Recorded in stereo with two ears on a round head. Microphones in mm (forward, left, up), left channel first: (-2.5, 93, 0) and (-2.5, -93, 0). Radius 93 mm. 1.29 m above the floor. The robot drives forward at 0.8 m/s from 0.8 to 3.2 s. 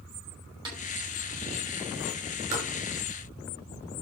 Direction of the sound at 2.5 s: 40° right (ahead or behind).